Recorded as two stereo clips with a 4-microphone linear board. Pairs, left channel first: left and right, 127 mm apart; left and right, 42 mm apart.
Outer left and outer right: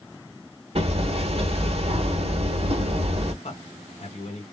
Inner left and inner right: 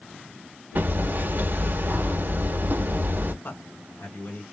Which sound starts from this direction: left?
A man speaking, at 3.4 s.